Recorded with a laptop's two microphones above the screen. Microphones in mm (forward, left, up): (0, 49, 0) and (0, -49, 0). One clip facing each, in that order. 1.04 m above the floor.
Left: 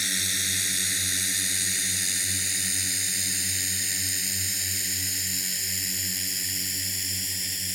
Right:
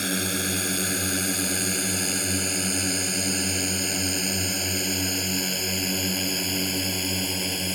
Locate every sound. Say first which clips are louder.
0.0 s a drone: right 8 dB; 50° right (ahead or behind); by 7.8 s 65° right (ahead or behind)